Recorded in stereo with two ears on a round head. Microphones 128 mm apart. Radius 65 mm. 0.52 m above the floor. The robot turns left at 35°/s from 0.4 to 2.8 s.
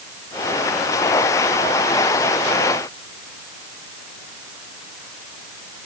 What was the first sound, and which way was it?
Only background noise.